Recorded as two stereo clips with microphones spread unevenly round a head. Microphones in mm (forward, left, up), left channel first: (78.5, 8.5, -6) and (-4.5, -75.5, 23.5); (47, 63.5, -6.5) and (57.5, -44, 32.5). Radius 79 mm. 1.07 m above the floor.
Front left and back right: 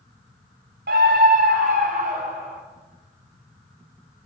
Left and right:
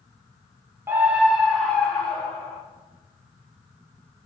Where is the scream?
165° right, 0.6 m; by 2.6 s 175° left, 2 m.